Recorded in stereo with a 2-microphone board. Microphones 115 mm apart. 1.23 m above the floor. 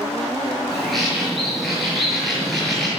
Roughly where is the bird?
Centre.